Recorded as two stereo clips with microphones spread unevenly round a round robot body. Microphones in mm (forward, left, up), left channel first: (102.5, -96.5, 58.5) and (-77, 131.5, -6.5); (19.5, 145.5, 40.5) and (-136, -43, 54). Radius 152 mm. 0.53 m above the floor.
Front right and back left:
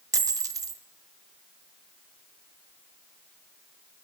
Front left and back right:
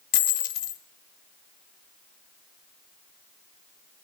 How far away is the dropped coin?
About 1.1 m.